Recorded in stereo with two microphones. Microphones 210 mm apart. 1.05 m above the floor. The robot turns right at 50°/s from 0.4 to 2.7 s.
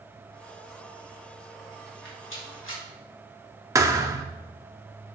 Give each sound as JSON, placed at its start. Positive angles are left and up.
{"t": 1.9, "sound": "a rattle", "side_deg": 55, "distance_m": 2.5}
{"t": 3.8, "sound": "a thud", "side_deg": -15, "distance_m": 0.6}